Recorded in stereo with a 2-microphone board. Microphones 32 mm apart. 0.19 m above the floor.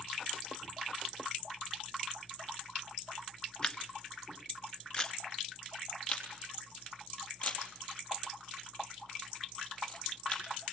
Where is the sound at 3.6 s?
25° left (ahead or behind), 1.2 m.